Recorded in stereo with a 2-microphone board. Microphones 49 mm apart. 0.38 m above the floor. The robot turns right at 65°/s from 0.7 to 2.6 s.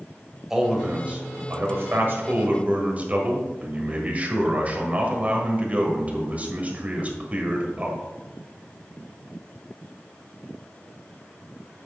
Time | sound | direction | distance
0.5 | a man speaking | 165° right | 1.6 m